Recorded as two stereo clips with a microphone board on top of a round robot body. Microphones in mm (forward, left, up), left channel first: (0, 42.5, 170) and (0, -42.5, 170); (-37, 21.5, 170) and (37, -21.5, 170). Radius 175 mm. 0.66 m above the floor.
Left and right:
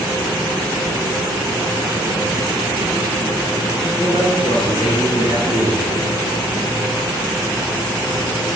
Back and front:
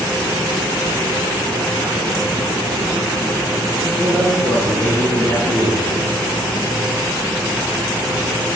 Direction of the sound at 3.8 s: 90° left.